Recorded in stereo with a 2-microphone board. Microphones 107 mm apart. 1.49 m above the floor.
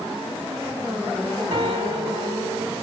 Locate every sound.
1.5 s a piano: 65° right (ahead or behind), 3.5 m